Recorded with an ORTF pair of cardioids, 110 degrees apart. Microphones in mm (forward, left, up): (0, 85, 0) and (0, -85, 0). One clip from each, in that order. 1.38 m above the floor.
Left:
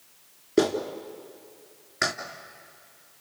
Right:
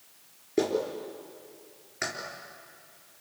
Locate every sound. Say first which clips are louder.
0.6 s a clap: left 3 dB; 45° left, 3.5 m